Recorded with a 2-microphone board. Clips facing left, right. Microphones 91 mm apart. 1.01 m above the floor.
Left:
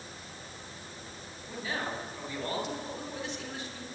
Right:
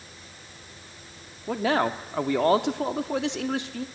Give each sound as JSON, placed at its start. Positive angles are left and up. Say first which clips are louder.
{"t": 1.5, "sound": "a man speaking", "louder": "right 12 dB", "side_deg": -75, "distance_m": 1.9}